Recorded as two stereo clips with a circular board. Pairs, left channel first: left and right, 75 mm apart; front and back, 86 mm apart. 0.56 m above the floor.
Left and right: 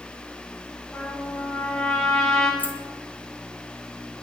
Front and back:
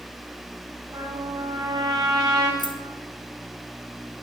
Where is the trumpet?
165° left, 7.5 m.